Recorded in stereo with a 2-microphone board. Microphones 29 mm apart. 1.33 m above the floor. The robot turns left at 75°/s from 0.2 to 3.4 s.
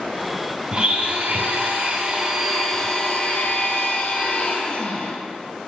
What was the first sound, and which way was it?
A blender, 35° right.